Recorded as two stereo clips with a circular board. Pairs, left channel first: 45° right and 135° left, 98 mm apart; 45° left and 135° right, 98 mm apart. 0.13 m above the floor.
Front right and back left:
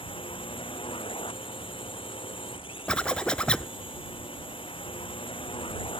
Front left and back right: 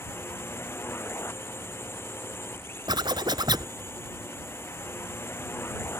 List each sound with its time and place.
0.0 s a drone: 20° right
2.9 s a zipper: 120° right